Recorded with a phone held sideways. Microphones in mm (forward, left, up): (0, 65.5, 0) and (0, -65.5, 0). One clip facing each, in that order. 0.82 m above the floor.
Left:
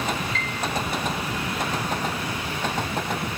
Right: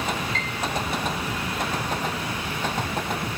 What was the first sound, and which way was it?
A piano, 40° right (ahead or behind).